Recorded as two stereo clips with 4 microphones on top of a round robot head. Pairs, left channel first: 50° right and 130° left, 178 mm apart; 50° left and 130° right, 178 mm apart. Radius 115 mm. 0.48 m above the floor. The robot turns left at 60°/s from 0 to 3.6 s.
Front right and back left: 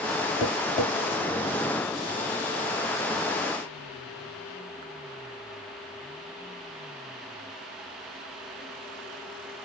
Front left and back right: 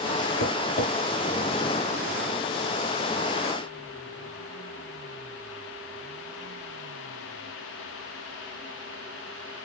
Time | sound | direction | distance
0.4 | tapping | 20° left | 2 m